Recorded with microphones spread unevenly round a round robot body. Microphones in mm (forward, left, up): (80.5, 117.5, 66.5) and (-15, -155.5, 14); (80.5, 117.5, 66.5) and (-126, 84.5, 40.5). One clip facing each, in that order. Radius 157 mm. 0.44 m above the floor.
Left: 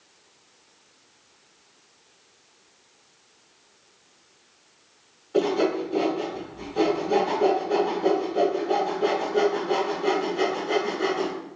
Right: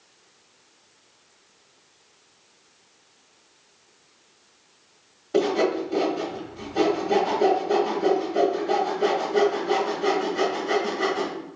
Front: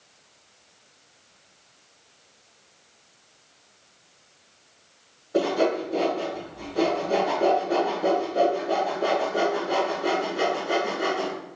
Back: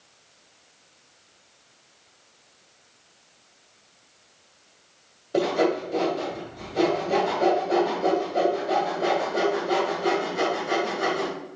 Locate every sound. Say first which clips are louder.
5.3 s sawing: right 1 dB, even; 110° right, 1.5 m